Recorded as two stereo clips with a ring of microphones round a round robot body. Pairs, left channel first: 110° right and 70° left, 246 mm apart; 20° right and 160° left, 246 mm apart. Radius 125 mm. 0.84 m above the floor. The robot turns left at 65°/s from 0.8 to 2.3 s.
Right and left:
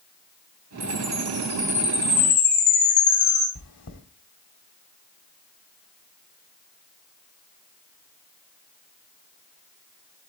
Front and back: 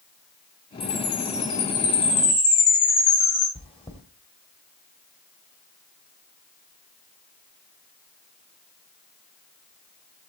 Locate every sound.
0.8 s a chime: 45° left, 6 m; by 3.5 s 50° right, 6 m
3.5 s chewing: 90° right, 1.9 m